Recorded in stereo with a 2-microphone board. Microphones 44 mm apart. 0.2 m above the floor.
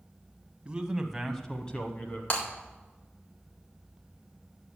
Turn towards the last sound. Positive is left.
turn(degrees=50)  # may be behind; listen again after turning